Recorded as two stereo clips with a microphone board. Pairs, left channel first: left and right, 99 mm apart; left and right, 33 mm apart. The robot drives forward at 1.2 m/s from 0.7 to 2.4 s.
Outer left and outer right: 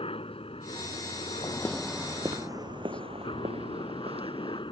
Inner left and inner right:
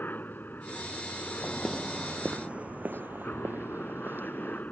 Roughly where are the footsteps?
Left.